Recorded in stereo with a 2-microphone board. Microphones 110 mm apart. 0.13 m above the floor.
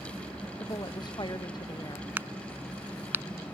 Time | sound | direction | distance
0.6 | a woman speaking | 40° left (ahead or behind) | ?
2.2 | a crack | 20° right (ahead or behind) | ?